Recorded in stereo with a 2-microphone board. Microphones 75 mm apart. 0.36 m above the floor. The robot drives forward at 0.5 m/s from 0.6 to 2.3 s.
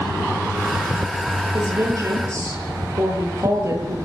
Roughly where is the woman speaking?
Right.